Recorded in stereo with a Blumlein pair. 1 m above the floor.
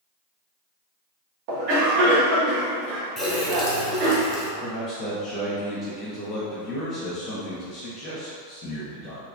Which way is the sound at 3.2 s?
5° right.